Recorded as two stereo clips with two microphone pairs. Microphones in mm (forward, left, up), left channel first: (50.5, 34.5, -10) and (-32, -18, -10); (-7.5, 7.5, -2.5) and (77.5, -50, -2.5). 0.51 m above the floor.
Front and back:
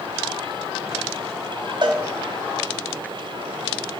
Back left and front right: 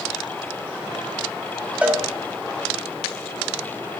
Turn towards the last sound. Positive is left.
turn(degrees=-110)